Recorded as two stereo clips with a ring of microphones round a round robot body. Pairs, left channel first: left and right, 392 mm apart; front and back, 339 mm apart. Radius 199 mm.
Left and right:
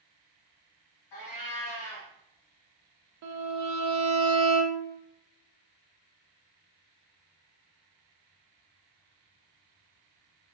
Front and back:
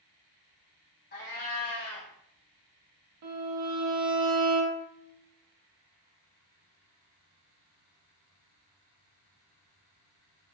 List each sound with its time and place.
1.1 s a cat meowing: 60° left, 1.6 m
3.2 s a violin: 140° right, 0.5 m